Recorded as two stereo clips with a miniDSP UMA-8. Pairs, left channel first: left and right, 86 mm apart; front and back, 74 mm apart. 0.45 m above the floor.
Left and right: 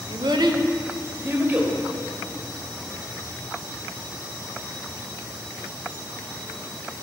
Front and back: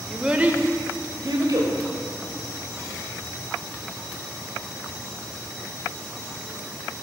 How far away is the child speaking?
About 0.7 m.